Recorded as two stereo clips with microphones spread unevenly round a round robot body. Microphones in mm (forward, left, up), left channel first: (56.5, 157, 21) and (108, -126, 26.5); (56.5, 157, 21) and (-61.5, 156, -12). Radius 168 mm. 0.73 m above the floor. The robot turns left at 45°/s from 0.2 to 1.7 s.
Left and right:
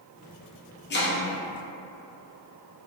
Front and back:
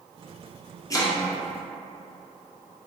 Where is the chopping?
70° left, 1.0 m; by 1.2 s 55° left, 1.0 m.